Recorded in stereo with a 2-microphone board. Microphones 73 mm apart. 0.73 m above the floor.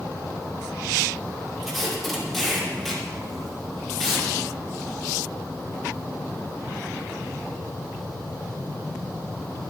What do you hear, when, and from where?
1.6 s tape being pulled: 5° left (ahead or behind), 2.5 m